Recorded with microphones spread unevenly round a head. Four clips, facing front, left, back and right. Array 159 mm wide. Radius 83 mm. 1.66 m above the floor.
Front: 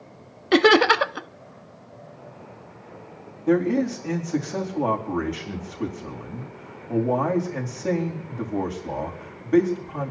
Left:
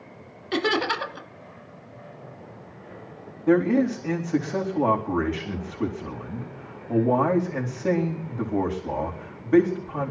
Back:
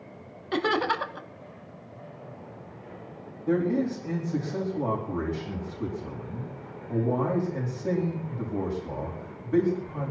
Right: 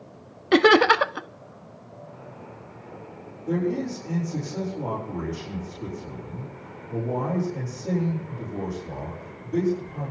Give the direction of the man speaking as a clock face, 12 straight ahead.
10 o'clock.